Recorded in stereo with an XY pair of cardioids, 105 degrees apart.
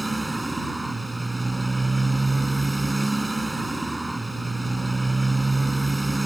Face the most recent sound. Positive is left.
turn(degrees=-10)